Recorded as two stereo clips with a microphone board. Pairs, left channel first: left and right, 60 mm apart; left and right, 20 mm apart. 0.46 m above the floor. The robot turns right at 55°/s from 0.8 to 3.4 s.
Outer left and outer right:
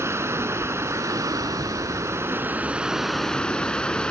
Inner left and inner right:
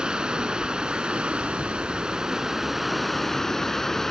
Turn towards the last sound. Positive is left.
turn(degrees=15)